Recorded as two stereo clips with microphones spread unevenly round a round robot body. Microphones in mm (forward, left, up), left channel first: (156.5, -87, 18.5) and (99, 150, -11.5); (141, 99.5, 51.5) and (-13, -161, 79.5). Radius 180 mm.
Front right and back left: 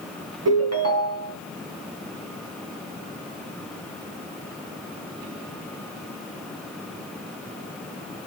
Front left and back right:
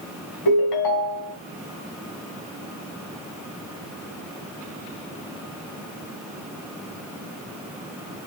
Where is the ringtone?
85° left, 3 m.